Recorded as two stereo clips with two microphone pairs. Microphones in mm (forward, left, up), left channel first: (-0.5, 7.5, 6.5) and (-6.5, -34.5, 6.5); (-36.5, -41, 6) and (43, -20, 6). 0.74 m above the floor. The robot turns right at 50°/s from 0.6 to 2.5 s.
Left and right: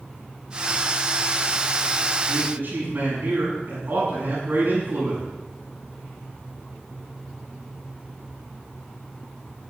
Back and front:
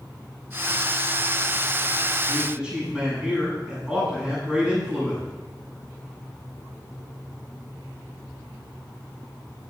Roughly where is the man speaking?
Right.